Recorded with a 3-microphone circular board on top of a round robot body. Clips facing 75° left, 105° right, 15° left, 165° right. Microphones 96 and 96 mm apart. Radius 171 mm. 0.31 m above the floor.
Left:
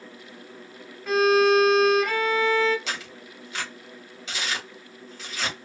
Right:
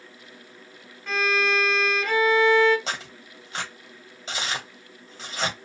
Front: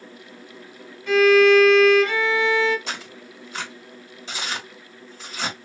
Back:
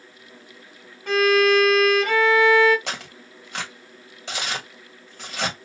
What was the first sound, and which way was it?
A violin, 160° left.